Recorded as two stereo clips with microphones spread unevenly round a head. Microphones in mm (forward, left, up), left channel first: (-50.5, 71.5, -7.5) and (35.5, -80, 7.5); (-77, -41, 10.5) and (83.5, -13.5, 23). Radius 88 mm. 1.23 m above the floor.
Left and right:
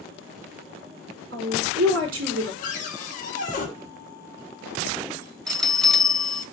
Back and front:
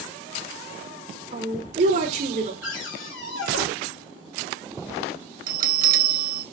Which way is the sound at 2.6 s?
165° left.